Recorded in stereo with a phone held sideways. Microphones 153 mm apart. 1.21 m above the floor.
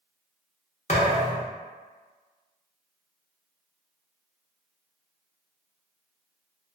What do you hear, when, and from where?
0.9 s a thud: 45° left (ahead or behind), 0.8 m